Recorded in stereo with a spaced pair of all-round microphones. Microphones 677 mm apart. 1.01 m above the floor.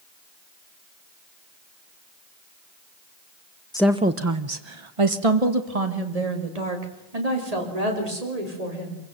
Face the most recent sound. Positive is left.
turn(degrees=-80)